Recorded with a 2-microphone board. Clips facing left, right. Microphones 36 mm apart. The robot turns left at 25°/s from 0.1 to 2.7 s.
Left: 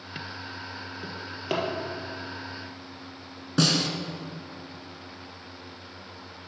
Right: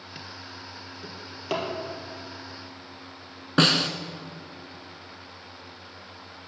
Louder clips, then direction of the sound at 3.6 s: Right 3 dB; 45° right (ahead or behind).